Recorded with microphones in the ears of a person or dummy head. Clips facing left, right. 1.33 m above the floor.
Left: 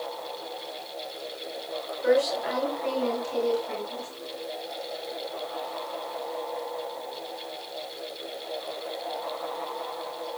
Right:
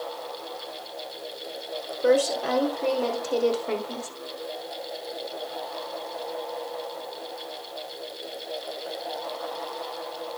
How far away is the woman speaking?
About 3.5 m.